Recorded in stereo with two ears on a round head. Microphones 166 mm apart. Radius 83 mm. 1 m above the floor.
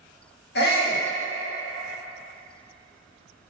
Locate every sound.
0.6 s a shout: 60° left (ahead or behind), 1.7 m